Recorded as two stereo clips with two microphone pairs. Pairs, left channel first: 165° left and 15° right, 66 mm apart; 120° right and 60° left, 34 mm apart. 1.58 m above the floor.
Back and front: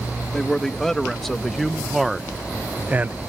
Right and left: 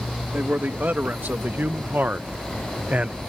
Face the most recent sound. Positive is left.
turn(degrees=25)